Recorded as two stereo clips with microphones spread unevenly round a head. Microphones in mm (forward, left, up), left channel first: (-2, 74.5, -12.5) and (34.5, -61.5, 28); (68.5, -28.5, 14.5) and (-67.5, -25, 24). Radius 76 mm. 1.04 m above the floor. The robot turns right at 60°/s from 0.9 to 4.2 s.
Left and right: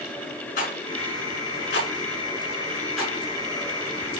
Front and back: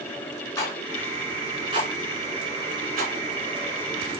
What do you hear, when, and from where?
0.6 s a rattle: 70° left, 5.5 m; by 3.1 s 155° right, 5.5 m